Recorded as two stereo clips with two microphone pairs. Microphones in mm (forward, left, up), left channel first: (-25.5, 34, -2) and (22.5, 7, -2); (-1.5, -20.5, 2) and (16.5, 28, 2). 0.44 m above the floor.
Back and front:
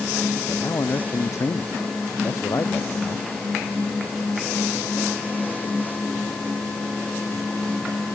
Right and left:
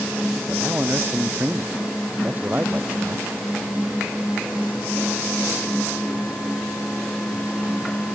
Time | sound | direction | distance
0.5 | a man speaking | 130° left | ?